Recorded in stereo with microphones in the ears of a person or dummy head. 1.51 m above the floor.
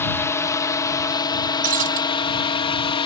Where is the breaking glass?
45° right (ahead or behind).